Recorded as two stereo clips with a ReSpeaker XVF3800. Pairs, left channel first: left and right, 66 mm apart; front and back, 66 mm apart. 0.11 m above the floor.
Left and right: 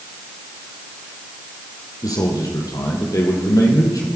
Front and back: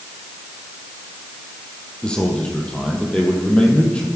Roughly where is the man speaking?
Left.